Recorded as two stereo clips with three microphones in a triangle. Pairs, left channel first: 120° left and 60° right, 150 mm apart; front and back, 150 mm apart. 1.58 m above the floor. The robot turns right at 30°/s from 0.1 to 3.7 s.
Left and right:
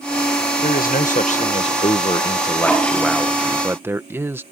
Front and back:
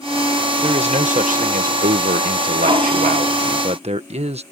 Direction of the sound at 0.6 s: 135° left.